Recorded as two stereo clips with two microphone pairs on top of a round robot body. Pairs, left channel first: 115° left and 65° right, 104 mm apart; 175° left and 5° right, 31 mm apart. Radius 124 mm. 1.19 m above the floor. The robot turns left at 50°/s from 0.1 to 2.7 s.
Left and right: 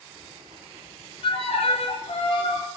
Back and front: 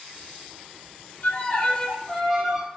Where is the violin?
140° left, 0.9 m; by 2.7 s 65° left, 0.9 m.